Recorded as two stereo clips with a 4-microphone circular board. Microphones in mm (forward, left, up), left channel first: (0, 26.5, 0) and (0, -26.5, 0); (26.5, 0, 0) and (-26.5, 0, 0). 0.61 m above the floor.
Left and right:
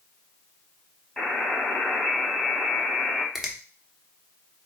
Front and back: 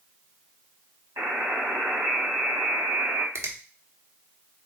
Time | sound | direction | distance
1.2 | a buzzer | 175° left | 1.9 m
3.4 | a finger snap | 170° right | 0.7 m